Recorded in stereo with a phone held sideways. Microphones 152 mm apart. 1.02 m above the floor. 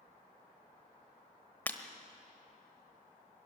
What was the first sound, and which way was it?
Breaking glass, 10° left (ahead or behind).